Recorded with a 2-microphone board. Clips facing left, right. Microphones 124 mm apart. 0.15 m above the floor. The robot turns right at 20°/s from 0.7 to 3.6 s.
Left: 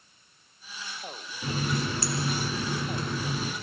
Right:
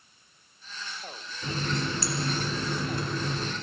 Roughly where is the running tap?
Behind left.